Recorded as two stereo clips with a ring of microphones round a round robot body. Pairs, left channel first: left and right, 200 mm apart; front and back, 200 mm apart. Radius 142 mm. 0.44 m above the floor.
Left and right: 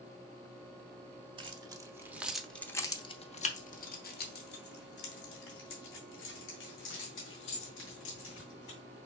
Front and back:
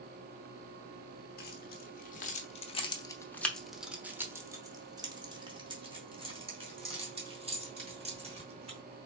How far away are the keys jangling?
About 1.2 m.